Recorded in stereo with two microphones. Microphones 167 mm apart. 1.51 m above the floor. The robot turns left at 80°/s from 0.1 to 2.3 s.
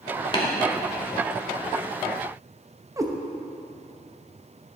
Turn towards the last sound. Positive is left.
turn(degrees=-20)  # may be behind; listen again after turning